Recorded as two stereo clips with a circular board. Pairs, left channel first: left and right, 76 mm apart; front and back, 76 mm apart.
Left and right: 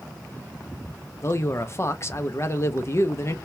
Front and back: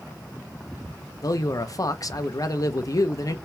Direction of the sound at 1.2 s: 40° left.